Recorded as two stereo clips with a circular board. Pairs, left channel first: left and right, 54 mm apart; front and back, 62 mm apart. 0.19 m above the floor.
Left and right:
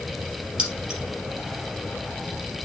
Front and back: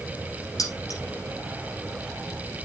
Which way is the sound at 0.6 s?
20° right.